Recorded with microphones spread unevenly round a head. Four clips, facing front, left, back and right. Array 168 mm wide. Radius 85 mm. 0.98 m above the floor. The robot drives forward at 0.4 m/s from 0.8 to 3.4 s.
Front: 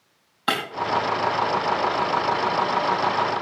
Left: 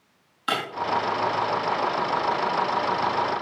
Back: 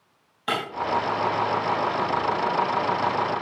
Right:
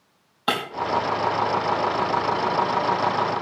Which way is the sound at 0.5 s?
75° right.